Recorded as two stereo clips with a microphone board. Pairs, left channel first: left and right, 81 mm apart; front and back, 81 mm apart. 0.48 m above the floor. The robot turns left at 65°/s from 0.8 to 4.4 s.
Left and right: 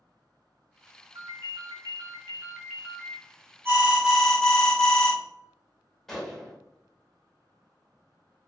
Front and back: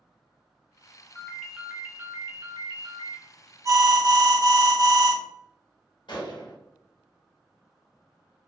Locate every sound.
1.1 s a ringtone: 65° right, 0.7 m; by 3.2 s 160° left, 0.7 m
3.6 s an alarm: 145° right, 0.6 m; by 5.2 s 170° left, 0.6 m
6.1 s a gunshot: 5° left, 0.7 m